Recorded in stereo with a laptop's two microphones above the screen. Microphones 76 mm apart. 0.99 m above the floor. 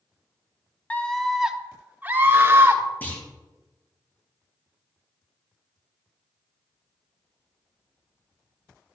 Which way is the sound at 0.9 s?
20° left (ahead or behind).